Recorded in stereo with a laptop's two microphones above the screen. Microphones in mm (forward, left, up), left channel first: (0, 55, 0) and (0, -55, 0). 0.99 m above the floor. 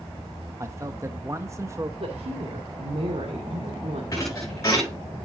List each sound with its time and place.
0.6 s a man speaking: 25° right (ahead or behind), 0.8 m
2.0 s a woman speaking: 75° right (ahead or behind), 2 m
4.1 s a thud: 30° left (ahead or behind), 5.5 m